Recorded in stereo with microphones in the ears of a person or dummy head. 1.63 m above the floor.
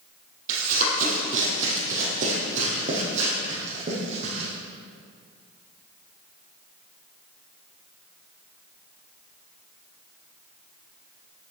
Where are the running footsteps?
50° right (ahead or behind), 3.5 m; by 4.5 s 40° right (ahead or behind), 5.5 m.